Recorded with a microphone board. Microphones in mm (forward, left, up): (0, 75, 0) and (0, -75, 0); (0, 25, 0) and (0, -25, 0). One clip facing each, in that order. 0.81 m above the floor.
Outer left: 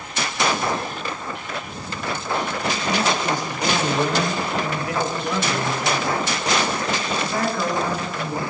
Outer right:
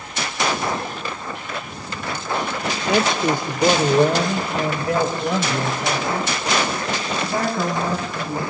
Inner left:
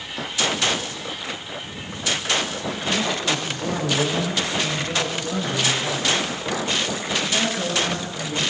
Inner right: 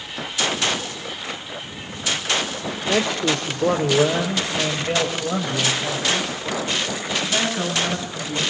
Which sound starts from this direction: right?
A man speaking, at 2.9 s.